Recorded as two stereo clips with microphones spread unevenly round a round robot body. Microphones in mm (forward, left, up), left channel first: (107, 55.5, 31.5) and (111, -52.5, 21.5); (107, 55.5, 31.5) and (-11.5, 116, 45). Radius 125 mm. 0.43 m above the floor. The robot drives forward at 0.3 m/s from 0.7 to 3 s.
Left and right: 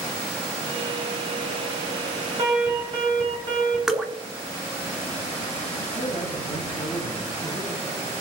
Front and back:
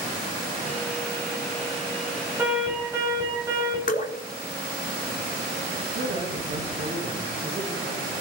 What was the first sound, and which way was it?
An alarm, 130° right.